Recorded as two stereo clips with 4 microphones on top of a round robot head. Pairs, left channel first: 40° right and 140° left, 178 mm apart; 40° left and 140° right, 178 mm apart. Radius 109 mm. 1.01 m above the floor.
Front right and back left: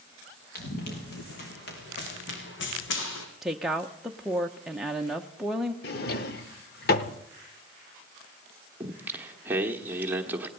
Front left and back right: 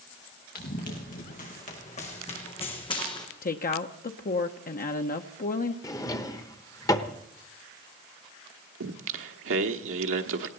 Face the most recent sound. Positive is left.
turn(degrees=-140)